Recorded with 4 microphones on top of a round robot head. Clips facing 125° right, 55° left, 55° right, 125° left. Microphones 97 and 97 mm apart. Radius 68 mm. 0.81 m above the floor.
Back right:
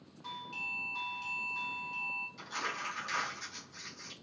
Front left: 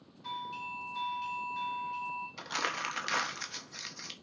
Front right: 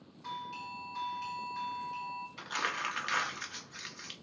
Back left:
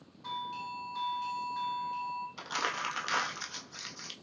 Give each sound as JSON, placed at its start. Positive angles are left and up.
{"t": 0.2, "sound": "a doorbell", "azimuth_deg": -155, "distance_m": 1.0}
{"t": 2.4, "sound": "crumpling", "azimuth_deg": 65, "distance_m": 0.6}